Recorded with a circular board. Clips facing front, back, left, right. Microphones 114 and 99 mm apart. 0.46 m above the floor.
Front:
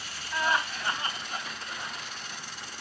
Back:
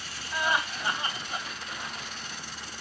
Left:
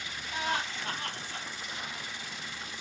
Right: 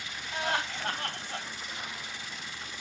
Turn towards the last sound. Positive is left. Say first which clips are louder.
# even, right 1 dB
turn(degrees=-110)